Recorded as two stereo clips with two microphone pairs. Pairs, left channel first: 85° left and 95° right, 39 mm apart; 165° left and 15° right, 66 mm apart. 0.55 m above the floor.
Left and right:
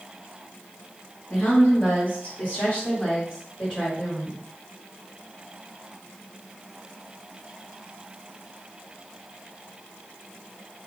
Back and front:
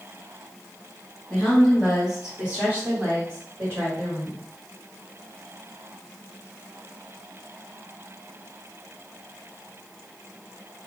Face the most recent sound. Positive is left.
turn(degrees=10)